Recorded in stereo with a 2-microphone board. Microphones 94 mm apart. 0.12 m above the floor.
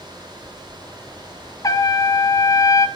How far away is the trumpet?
About 0.8 m.